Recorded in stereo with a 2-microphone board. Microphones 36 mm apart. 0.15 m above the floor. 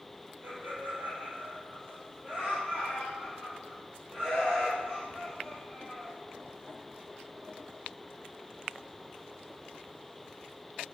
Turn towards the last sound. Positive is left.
turn(degrees=5)  # may be behind; listen again after turning